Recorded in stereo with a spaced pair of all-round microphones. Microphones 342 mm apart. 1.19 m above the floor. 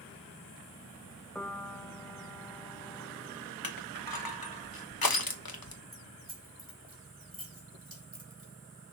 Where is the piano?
5° left (ahead or behind), 0.8 m.